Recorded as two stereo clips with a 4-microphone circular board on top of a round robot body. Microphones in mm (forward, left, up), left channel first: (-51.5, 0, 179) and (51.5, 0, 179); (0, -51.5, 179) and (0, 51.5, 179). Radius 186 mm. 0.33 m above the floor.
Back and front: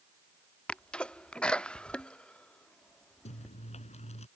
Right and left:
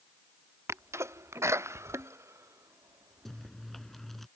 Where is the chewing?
Straight behind.